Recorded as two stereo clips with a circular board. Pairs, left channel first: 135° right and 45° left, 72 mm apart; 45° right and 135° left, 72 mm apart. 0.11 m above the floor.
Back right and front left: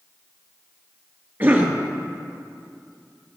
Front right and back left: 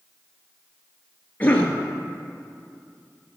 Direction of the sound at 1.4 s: 10° left.